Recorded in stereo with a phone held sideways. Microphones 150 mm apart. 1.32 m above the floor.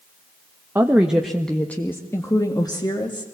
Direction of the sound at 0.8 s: 15° right (ahead or behind).